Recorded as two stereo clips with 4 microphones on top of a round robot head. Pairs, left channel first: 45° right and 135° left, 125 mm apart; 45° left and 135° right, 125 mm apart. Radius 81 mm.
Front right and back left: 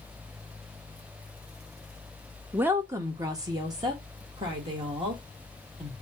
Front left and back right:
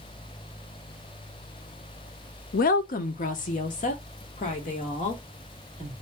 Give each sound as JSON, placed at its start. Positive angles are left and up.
{"t": 2.5, "sound": "a woman speaking", "azimuth_deg": 55, "distance_m": 0.5}